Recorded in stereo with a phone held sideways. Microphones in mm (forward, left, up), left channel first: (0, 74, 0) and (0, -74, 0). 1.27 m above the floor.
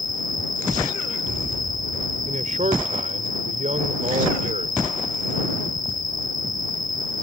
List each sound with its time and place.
0.0 s an insect: 75° left (ahead or behind)
2.2 s a man speaking: 55° right (ahead or behind)